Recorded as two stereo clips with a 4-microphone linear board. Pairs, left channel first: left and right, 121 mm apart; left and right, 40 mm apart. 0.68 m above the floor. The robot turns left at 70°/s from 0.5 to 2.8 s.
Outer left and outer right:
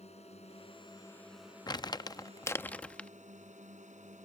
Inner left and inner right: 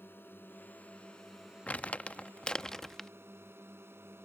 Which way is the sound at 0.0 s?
60° left (ahead or behind).